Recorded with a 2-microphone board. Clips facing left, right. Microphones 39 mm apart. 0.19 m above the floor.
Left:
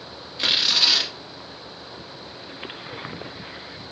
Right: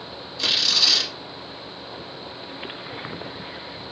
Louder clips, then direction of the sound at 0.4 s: Left 1 dB; 25° left (ahead or behind).